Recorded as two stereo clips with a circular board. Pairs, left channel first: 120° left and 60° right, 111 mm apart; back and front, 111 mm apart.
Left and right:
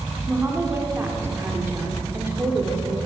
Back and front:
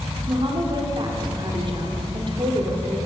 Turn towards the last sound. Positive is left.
turn(degrees=0)